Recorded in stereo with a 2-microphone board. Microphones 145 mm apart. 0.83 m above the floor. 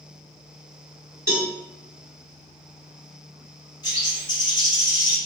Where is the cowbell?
20° right (ahead or behind), 0.9 m.